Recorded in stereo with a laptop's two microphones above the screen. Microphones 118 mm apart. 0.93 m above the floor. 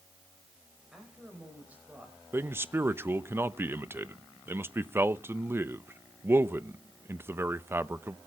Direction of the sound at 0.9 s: 5° right (ahead or behind).